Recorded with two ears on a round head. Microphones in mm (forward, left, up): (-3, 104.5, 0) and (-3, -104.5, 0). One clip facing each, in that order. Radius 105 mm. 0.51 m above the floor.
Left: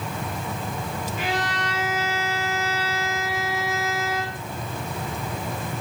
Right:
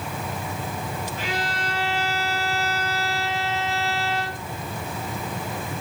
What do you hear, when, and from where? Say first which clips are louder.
1.2 s a violin: left 4 dB; 65° left (ahead or behind), 1.9 m